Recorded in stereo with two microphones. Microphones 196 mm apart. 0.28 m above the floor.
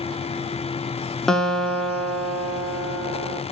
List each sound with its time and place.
1.3 s a guitar: centre (ahead or behind), 0.8 m